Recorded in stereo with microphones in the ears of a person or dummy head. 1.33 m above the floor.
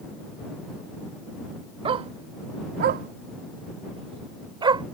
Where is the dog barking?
30° right (ahead or behind); by 4.8 s 20° right (ahead or behind).